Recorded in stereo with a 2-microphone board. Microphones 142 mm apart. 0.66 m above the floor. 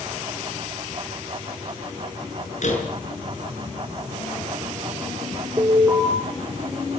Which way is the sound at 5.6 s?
20° right (ahead or behind).